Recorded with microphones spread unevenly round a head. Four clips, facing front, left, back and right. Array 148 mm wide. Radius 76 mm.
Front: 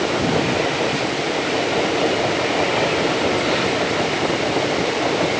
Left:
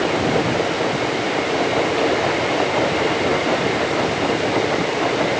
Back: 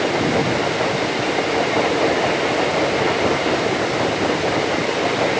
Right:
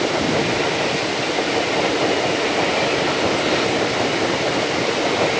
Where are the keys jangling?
No keys jangling in this recording.